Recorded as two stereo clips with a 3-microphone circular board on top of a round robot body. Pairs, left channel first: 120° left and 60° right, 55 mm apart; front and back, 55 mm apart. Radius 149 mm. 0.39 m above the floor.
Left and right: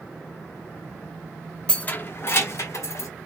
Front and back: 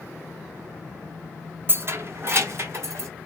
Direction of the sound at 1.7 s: Straight behind.